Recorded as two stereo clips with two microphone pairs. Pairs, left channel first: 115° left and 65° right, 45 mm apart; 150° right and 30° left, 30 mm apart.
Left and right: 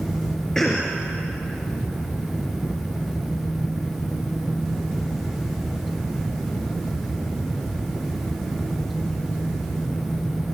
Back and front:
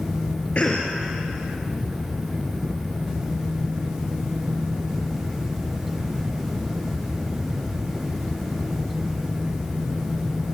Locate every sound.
0.6 s a cough: 165° right, 3 m